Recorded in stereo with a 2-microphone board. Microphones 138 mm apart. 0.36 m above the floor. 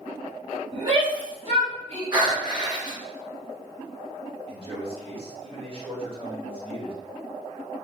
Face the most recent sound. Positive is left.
turn(degrees=-40)  # may be behind; listen again after turning